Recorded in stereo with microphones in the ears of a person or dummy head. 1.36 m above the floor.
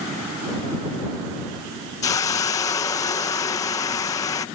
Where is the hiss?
20° left (ahead or behind).